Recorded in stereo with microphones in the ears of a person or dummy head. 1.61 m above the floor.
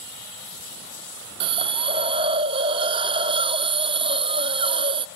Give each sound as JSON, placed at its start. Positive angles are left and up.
{"t": 1.4, "sound": "a hiss", "side_deg": -30, "distance_m": 0.5}